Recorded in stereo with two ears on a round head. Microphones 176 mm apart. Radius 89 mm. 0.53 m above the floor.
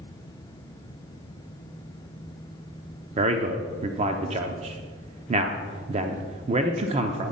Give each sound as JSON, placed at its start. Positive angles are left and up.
{"t": 3.2, "sound": "a man speaking", "side_deg": -35, "distance_m": 0.7}